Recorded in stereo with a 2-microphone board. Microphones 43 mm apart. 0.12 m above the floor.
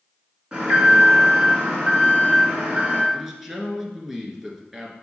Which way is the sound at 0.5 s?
20° right (ahead or behind).